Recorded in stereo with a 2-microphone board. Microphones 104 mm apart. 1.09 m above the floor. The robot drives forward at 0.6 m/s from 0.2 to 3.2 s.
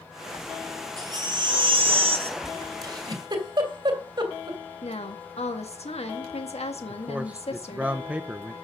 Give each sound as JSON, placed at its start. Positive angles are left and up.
{"t": 1.0, "sound": "a baby crying", "side_deg": -40, "distance_m": 1.5}
{"t": 2.8, "sound": "a giggle", "side_deg": -40, "distance_m": 2.5}
{"t": 4.8, "sound": "a woman speaking", "side_deg": 75, "distance_m": 1.4}
{"t": 6.9, "sound": "a man speaking", "side_deg": -15, "distance_m": 0.7}